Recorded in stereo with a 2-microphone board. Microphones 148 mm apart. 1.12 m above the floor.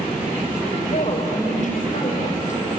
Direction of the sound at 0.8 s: 60° left (ahead or behind).